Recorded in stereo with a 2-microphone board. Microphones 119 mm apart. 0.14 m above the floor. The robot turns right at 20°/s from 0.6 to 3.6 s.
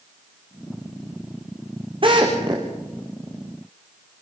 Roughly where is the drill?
Right.